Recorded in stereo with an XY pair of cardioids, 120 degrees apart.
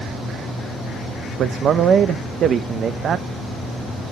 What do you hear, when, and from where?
1.4 s a man speaking: 50° right, 0.9 m